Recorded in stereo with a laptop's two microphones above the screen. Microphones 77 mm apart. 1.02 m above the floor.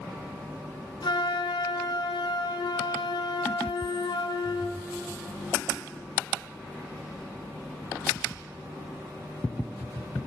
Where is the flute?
75° left (ahead or behind), 0.7 m.